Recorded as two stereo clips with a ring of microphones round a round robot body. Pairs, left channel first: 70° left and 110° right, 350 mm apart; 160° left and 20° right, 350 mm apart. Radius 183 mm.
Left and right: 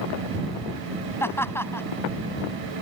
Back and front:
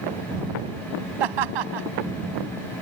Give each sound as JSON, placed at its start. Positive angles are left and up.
{"t": 1.2, "sound": "laughter", "azimuth_deg": -15}